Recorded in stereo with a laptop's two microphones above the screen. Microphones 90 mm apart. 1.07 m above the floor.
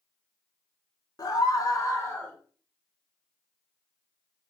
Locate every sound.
1.2 s a scream: 45° left (ahead or behind), 0.7 m; by 2.4 s 20° left (ahead or behind), 0.6 m